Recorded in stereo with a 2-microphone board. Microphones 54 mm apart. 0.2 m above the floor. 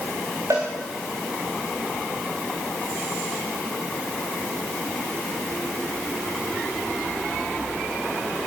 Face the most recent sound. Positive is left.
turn(degrees=-85)